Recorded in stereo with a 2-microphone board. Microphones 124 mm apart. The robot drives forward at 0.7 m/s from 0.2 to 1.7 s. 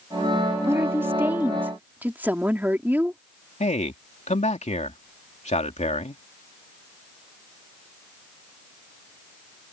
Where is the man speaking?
70° left (ahead or behind).